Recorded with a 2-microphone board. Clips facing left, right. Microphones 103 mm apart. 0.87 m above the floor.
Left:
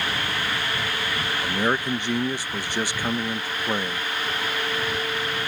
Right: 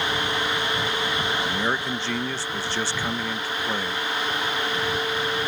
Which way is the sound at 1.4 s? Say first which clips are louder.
Left 2 dB; 15° left (ahead or behind).